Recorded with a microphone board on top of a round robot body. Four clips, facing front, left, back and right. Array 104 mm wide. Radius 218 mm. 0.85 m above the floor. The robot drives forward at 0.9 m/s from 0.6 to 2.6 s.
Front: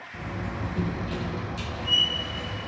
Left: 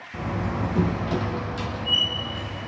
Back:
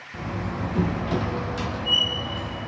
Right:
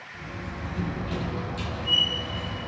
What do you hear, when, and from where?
0.1 s a door slam: 110° left, 0.9 m; by 2.7 s 160° left, 2 m